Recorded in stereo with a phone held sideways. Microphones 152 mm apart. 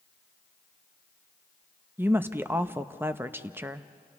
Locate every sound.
2.0 s a woman speaking: 15° right (ahead or behind), 0.5 m